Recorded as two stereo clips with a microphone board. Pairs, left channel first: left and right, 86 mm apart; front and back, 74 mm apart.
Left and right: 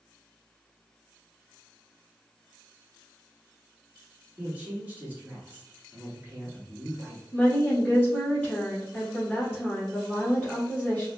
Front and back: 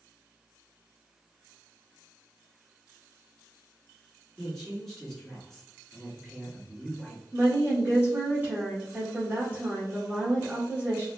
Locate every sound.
4.4 s a woman speaking: 75° right, 1.4 m
7.3 s a woman speaking: 150° left, 1.7 m